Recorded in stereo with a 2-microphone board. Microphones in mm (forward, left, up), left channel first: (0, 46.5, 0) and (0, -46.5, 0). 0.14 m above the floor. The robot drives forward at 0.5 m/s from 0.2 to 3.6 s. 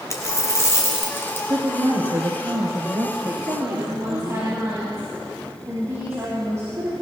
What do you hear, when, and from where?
0.1 s a dropped coin: 35° left (ahead or behind), 1.6 m; by 1.4 s 25° left (ahead or behind), 2 m
1.5 s a woman speaking: 40° right (ahead or behind), 1.9 m; by 4.4 s 30° right (ahead or behind), 2.5 m
3.4 s a woman speaking: 30° right (ahead or behind), 3.5 m